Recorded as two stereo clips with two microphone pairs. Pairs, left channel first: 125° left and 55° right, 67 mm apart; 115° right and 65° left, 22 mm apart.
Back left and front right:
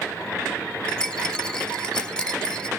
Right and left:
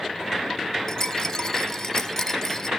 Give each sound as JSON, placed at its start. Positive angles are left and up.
{"t": 0.9, "sound": "a rattle", "azimuth_deg": -165, "distance_m": 1.0}